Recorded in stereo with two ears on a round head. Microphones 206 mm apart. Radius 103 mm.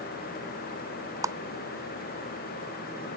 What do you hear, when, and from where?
1.2 s a clap: 15° right (ahead or behind)